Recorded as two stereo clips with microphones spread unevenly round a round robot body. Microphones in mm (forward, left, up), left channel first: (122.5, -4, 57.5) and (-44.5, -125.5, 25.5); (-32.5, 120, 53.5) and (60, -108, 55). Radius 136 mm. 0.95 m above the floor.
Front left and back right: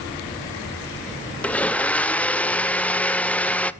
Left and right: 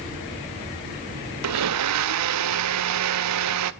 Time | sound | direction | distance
1.4 | a blender | 45° right | 0.6 m